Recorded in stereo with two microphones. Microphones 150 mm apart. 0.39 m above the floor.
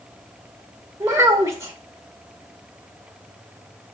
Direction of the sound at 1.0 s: 20° right (ahead or behind).